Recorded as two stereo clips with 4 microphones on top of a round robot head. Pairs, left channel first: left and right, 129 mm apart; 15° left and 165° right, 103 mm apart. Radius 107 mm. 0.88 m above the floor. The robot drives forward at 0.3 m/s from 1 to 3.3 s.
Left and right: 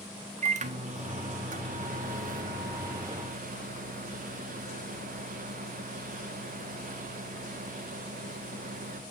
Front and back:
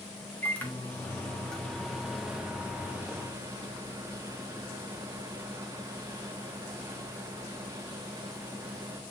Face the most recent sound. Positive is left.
turn(degrees=-100)